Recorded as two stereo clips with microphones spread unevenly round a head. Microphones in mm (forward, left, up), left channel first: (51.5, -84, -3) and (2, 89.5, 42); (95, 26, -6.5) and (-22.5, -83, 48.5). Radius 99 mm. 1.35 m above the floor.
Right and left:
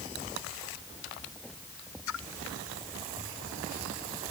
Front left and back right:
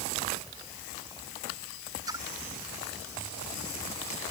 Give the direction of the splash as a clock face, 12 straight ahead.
2 o'clock.